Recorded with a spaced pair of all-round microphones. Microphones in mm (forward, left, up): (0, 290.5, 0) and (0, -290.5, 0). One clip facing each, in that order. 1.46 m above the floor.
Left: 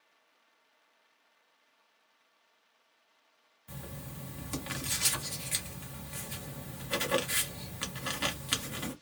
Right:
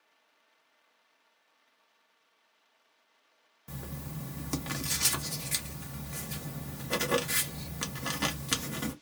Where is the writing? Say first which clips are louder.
Right 4 dB; 70° right (ahead or behind), 0.8 m.